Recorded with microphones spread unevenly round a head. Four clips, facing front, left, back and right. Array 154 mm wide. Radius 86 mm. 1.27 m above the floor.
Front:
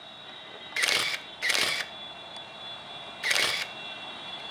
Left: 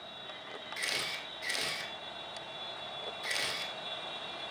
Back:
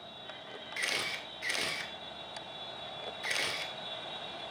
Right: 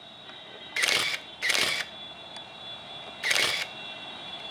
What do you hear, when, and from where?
0.8 s a camera shutter: 40° right, 0.8 m